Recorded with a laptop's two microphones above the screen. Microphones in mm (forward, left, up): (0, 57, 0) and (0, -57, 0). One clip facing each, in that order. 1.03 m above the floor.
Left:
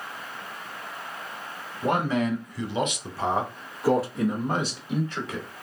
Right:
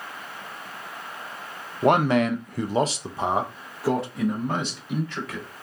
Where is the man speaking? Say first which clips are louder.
Right 5 dB; 70° right (ahead or behind), 0.6 m; by 5.5 s 15° left (ahead or behind), 1.6 m.